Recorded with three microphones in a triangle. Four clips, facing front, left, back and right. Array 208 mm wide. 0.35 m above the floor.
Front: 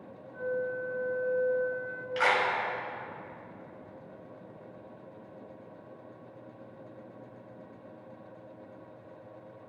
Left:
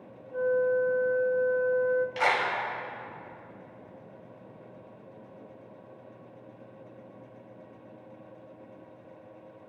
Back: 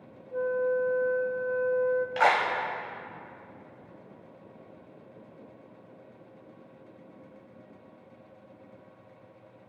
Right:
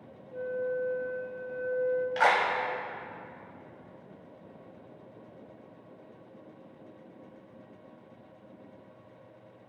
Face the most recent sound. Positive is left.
turn(degrees=-160)